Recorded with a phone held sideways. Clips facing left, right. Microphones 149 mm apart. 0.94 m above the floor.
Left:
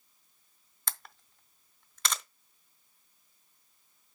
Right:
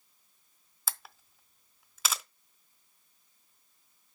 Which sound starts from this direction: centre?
A camera shutter, at 0.9 s.